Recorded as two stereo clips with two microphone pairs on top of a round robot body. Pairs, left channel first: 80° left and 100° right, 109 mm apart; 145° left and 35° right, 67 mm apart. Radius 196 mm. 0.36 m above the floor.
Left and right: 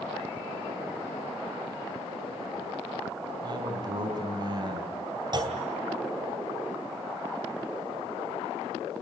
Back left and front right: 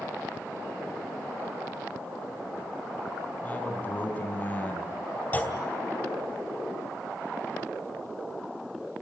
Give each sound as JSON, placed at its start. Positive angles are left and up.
{"t": 3.4, "sound": "a man speaking", "azimuth_deg": -150, "distance_m": 4.0}
{"t": 5.3, "sound": "a clunk", "azimuth_deg": -150, "distance_m": 2.5}